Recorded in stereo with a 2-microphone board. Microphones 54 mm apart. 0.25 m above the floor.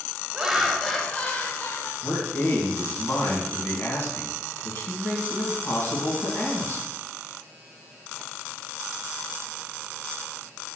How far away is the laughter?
About 1.1 m.